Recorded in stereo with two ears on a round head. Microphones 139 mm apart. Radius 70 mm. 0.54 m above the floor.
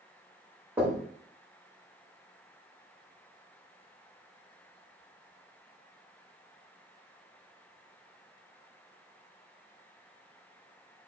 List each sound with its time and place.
0.8 s knocking: 15° right (ahead or behind), 1.7 m